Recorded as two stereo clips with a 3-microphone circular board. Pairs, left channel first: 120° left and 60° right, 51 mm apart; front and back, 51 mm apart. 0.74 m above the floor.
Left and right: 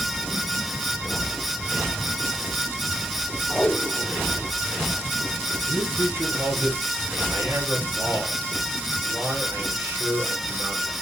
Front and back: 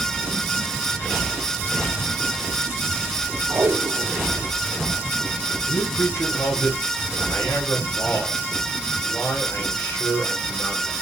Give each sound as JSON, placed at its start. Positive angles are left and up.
{"t": 3.5, "sound": "tape being pulled", "azimuth_deg": 170, "distance_m": 3.0}
{"t": 5.6, "sound": "a man speaking", "azimuth_deg": -30, "distance_m": 9.5}